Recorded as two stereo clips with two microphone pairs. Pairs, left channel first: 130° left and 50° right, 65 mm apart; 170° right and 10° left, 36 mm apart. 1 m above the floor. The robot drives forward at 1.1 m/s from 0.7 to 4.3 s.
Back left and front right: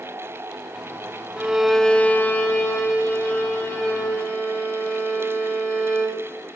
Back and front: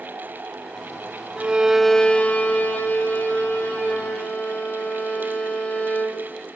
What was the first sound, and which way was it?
A violin, 5° left.